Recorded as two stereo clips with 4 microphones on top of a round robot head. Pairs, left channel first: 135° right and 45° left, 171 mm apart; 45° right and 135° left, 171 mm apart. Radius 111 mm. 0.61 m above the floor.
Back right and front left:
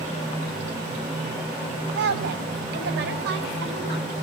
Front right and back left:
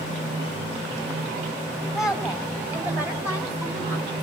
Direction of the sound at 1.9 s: 45° left.